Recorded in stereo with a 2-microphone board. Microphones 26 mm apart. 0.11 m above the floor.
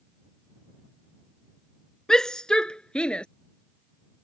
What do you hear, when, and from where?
2.1 s a shout: 25° left (ahead or behind); by 3.2 s 40° left (ahead or behind)